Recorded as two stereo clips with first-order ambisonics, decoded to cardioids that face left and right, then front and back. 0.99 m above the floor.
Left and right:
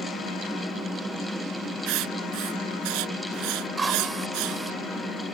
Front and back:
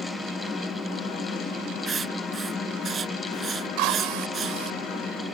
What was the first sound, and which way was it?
Writing, 115° right.